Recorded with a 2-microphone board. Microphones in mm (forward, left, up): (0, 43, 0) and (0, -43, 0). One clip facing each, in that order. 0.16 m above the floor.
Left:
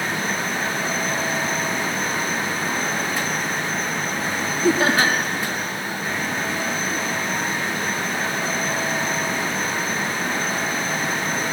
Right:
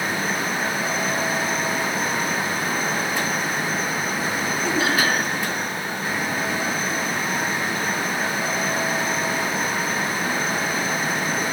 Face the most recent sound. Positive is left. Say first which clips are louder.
# left 4 dB
turn(degrees=40)  # may be behind; listen again after turning